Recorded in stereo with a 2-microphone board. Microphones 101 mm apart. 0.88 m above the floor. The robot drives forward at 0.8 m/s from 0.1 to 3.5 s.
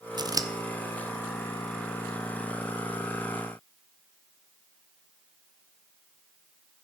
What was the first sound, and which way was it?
Scissors, 45° right (ahead or behind).